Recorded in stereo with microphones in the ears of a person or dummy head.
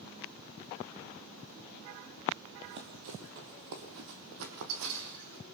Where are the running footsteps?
45° right (ahead or behind), 2.0 m; by 5.4 s 70° right (ahead or behind), 4 m.